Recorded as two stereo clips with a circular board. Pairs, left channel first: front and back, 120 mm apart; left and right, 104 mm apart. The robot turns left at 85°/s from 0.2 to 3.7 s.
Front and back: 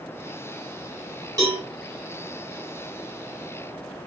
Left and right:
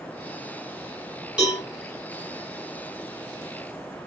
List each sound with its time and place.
1.4 s a cowbell: 160° right, 1.5 m; by 1.6 s straight behind, 1.5 m